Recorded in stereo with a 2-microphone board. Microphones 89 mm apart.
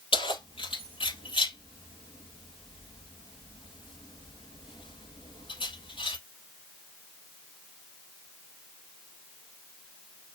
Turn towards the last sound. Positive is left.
turn(degrees=80)